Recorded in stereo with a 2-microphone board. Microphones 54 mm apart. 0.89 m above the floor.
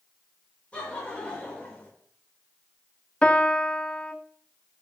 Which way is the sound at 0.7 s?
20° left (ahead or behind).